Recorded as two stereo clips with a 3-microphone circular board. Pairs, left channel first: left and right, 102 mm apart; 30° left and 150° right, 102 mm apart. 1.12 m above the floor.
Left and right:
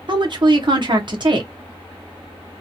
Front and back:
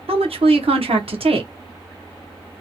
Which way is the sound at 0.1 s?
130° right.